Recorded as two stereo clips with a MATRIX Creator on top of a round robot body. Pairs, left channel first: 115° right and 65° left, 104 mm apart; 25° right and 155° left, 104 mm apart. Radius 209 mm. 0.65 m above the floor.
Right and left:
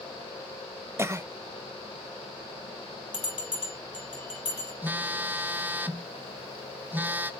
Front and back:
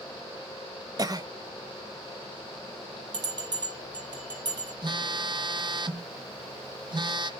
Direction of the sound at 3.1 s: 155° right.